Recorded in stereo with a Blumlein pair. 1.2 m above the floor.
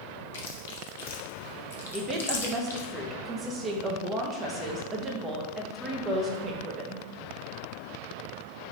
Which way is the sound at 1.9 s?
20° right.